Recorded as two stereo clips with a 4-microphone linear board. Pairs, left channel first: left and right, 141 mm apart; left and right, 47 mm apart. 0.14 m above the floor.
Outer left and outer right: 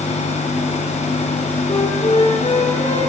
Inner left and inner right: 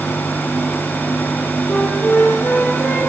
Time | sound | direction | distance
1.7 | a flute | 35° left (ahead or behind) | 1.2 m